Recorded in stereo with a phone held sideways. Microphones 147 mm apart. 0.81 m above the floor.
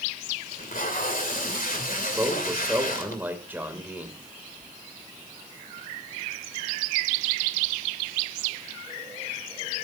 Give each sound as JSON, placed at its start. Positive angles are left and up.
{"t": 0.5, "sound": "tape being pulled", "side_deg": 70, "distance_m": 2.5}
{"t": 2.2, "sound": "a man speaking", "side_deg": -15, "distance_m": 3.0}